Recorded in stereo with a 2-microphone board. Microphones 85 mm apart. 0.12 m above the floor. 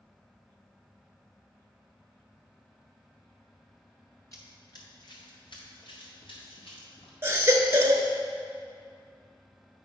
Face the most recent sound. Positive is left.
turn(degrees=-30)  # may be behind; listen again after turning